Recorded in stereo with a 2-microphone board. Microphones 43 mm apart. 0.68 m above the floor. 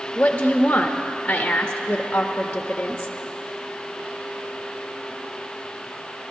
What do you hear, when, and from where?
0.1 s a woman speaking: 30° left (ahead or behind), 0.6 m